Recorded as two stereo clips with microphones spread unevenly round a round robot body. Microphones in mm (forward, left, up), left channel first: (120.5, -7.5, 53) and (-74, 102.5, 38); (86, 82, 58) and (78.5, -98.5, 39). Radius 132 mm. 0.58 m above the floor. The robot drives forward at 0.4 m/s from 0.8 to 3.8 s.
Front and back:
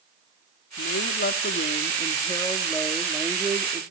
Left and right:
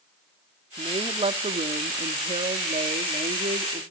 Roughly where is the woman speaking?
Ahead right.